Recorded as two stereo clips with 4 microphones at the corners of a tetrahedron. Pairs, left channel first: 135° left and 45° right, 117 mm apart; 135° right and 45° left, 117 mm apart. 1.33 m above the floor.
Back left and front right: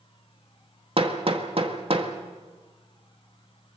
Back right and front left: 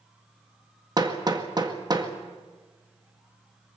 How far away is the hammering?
About 1.8 m.